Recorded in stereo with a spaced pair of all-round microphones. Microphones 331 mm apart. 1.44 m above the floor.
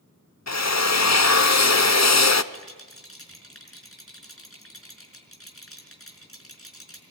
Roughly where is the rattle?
Left.